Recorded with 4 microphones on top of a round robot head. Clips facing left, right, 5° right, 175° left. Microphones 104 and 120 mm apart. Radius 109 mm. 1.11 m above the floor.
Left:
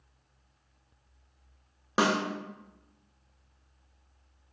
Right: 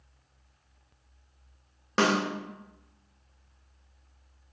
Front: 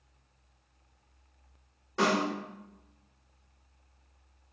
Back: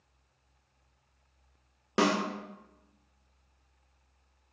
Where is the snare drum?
170° left, 0.6 m.